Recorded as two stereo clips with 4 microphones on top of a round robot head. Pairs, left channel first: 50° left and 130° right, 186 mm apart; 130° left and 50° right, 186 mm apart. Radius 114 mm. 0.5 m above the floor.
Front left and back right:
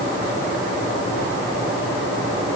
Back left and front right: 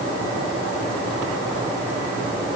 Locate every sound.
Only background noise.